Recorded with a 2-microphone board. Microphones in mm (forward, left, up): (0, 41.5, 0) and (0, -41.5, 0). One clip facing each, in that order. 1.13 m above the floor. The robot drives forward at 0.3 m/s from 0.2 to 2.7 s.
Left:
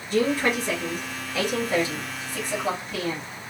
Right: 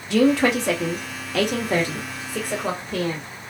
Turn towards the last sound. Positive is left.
turn(degrees=-45)  # may be behind; listen again after turning